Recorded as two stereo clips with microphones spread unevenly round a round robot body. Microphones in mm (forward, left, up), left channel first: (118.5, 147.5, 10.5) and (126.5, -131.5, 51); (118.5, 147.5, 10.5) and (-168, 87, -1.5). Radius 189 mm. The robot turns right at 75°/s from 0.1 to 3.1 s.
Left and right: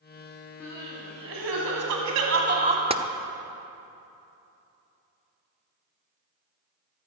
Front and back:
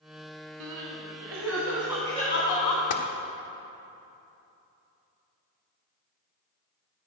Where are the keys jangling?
No keys jangling in this recording.